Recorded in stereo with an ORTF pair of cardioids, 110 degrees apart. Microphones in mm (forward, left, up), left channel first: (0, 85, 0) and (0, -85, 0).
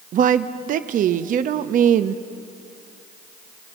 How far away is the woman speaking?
About 0.6 m.